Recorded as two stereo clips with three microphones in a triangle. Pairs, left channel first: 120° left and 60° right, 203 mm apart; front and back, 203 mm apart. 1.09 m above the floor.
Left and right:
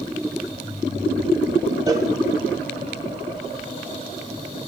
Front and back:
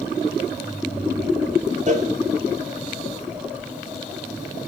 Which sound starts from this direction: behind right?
A cowbell, at 1.9 s.